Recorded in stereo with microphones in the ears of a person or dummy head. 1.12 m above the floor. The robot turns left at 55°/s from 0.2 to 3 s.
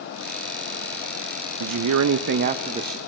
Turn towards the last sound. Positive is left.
turn(degrees=-175)